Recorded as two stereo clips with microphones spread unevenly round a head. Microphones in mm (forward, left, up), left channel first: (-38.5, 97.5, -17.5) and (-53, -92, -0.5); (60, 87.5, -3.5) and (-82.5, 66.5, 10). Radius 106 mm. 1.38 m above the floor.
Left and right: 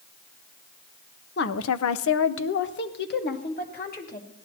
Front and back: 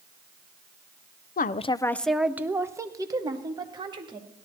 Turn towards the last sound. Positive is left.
turn(degrees=130)